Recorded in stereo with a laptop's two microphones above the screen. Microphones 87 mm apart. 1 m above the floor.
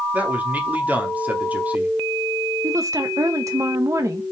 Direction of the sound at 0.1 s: 20° right (ahead or behind).